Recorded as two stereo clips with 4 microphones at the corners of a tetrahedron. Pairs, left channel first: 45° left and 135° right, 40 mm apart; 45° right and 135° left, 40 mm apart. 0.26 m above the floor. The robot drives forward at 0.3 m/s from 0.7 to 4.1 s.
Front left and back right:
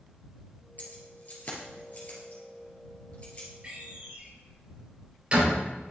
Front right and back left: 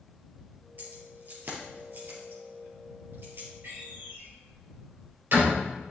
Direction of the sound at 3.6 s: 170° left.